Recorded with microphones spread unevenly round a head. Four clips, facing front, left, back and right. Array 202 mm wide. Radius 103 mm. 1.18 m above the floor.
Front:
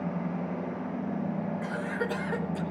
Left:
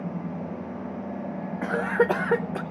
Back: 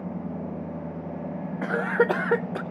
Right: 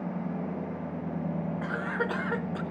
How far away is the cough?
About 0.8 m.